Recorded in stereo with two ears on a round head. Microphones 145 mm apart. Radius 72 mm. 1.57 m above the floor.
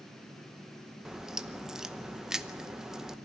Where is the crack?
5° right (ahead or behind), 0.7 m.